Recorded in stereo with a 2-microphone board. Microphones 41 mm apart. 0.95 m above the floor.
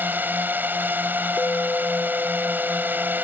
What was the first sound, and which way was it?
A drone, 50° right (ahead or behind).